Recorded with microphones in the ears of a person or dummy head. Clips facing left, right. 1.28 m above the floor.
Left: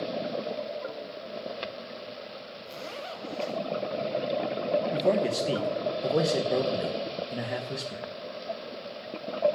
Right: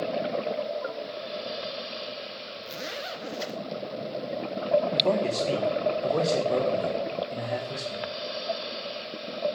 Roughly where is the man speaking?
Centre.